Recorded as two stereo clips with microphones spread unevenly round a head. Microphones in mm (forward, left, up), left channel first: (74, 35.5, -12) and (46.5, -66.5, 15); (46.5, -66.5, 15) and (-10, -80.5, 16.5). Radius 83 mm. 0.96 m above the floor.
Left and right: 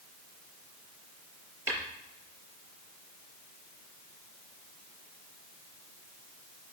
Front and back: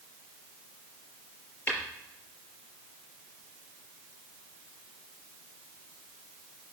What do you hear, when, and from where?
1.7 s tapping: 45° right, 5 m